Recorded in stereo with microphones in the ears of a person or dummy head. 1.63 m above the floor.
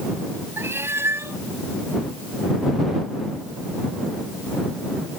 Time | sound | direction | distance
0.6 | a cat meowing | 15° right (ahead or behind) | ?